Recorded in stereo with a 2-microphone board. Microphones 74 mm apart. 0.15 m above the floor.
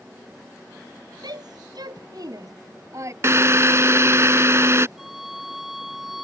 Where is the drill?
40° right (ahead or behind).